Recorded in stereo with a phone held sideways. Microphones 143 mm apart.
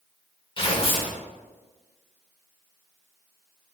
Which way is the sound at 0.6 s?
40° left (ahead or behind).